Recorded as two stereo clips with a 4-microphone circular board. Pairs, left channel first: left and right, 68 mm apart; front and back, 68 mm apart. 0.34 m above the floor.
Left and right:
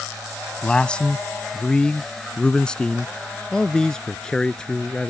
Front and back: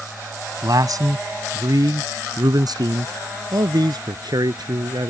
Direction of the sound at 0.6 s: 165° left.